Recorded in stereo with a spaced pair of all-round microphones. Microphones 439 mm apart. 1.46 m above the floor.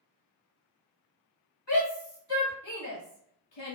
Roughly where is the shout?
Left.